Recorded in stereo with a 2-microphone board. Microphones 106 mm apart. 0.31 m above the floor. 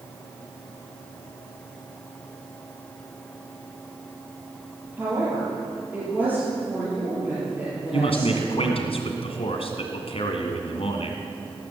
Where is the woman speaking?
15° right (ahead or behind), 6.5 m.